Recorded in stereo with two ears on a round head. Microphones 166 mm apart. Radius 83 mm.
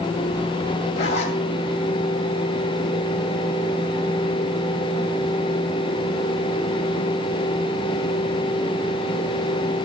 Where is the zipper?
35° left (ahead or behind), 2.5 m.